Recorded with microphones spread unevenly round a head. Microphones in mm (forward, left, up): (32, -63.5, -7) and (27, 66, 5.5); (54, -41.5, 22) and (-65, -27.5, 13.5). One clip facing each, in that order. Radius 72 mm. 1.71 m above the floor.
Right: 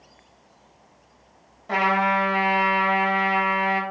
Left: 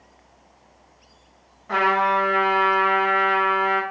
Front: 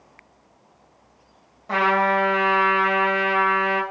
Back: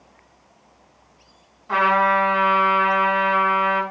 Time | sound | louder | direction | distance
1.7 | a trumpet | left 1 dB, back 2 dB | 40° right | 2.5 m